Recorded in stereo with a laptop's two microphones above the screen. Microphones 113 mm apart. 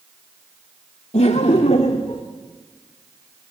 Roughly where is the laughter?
Left.